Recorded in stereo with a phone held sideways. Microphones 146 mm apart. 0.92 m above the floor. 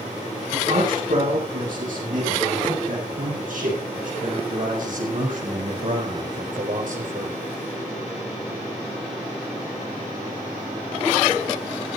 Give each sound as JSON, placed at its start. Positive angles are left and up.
{"t": 0.5, "sound": "a man speaking", "side_deg": -80, "distance_m": 9.5}